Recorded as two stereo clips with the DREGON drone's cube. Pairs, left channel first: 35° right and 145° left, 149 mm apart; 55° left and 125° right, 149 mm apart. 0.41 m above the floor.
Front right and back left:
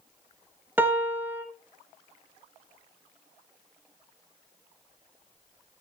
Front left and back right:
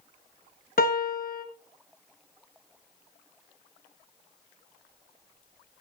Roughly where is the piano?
Left.